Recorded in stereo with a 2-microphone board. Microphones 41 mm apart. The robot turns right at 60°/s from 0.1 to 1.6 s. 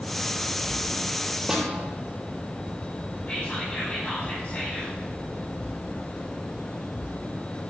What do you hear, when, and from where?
1.5 s a snare drum: 15° right (ahead or behind), 3.5 m; by 1.7 s 20° right (ahead or behind), 3.5 m
3.3 s whispering: 30° left (ahead or behind), 6 m